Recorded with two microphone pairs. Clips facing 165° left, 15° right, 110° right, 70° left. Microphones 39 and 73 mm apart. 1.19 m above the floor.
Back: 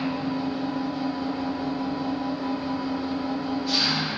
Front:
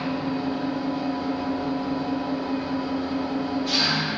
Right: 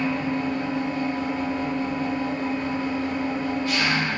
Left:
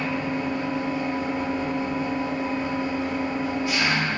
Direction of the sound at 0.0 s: 5° right.